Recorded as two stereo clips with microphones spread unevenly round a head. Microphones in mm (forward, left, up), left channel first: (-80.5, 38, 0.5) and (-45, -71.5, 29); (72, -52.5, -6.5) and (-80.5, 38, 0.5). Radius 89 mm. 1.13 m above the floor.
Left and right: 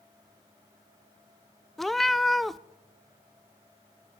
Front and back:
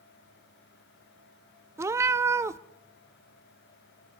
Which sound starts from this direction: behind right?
A cat meowing, at 1.8 s.